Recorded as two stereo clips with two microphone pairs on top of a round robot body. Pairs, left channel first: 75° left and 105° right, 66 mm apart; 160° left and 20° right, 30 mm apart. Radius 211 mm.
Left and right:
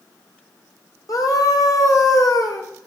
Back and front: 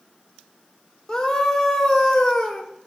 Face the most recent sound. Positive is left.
turn(degrees=90)